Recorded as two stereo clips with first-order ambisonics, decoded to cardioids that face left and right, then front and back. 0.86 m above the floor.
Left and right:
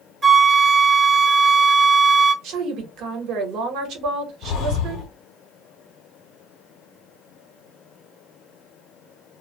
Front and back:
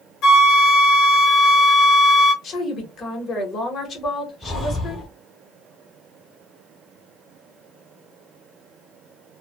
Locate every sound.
0.2 s a flute: 25° right, 0.6 m
2.4 s a woman speaking: 65° right, 1.1 m
4.4 s breathing: 95° left, 0.8 m